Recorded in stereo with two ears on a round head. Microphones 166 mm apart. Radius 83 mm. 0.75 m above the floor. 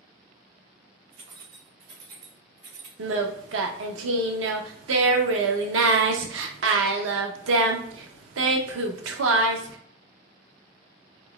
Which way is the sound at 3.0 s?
80° right.